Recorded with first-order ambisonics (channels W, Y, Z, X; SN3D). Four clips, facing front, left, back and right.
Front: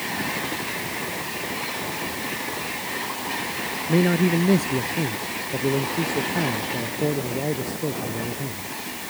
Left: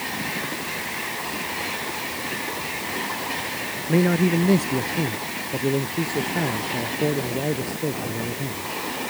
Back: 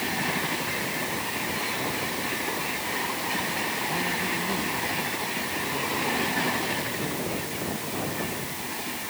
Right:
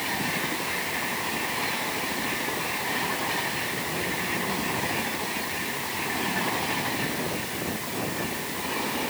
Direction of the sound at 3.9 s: 50° left.